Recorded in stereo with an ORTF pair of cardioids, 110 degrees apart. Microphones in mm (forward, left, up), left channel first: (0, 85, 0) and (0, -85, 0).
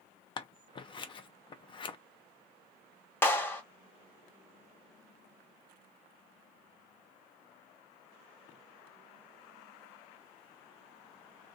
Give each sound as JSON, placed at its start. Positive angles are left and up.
{"t": 0.4, "sound": "scissors", "azimuth_deg": 30, "distance_m": 0.5}
{"t": 3.2, "sound": "a clap", "azimuth_deg": 10, "distance_m": 0.9}